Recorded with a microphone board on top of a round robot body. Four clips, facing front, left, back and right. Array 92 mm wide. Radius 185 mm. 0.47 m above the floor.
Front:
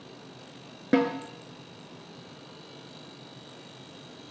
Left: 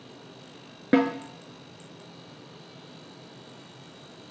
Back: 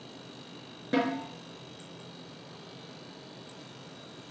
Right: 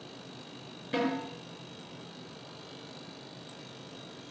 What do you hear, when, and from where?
0.9 s a snare drum: 65° left, 2.5 m